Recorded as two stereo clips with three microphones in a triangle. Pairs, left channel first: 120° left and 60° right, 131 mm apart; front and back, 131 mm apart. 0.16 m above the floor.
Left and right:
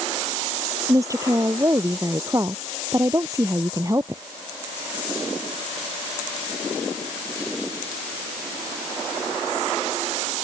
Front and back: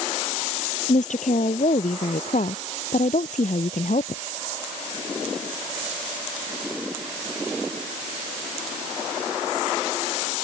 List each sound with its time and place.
0.9 s a woman speaking: 5° left